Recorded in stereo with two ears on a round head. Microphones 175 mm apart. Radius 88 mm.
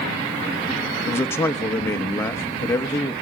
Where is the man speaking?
10° left (ahead or behind), 1.1 m.